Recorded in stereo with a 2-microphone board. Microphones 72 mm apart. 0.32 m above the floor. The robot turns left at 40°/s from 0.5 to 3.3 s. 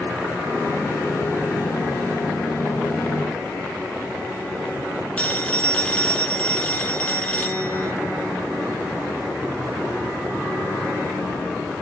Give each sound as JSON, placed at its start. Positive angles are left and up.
{"t": 5.2, "sound": "a phone ringing", "side_deg": 20, "distance_m": 1.1}